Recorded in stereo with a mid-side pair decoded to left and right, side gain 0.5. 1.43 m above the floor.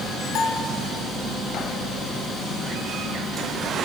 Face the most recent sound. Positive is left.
turn(degrees=70)